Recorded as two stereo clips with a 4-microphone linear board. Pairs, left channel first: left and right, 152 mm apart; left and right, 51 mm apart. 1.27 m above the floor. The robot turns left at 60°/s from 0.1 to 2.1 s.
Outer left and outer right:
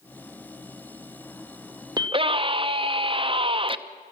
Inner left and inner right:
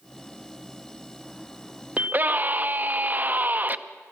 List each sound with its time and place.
2.0 s a scream: 25° right (ahead or behind), 0.6 m; by 3.8 s 35° right (ahead or behind), 0.6 m